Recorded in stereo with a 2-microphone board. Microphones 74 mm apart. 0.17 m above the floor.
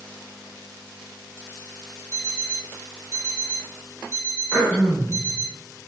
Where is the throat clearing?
15° left (ahead or behind), 0.9 m.